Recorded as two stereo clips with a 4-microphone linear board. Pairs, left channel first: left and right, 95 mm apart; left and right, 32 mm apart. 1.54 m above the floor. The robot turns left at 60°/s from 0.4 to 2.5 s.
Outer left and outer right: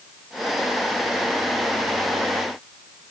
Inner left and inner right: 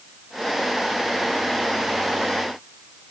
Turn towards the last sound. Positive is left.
No sound to turn to.